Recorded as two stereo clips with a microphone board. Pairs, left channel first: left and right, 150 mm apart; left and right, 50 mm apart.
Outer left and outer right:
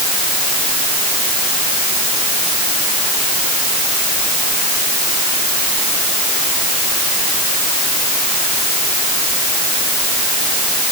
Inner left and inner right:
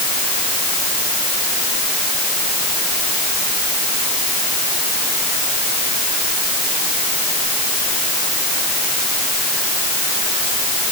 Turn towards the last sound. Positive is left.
No sound to turn to.